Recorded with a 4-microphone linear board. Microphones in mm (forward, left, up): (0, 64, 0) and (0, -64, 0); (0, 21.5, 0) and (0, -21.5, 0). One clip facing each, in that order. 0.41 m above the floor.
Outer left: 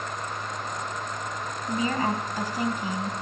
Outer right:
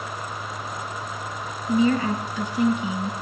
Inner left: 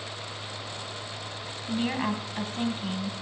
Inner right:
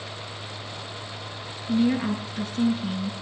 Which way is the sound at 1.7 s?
40° left (ahead or behind).